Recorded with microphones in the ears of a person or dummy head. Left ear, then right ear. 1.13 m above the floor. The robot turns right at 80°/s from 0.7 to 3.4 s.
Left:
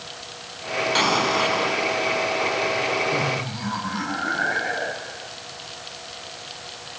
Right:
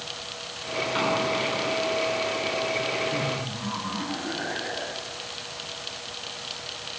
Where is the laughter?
55° left (ahead or behind); by 5.3 s 75° left (ahead or behind).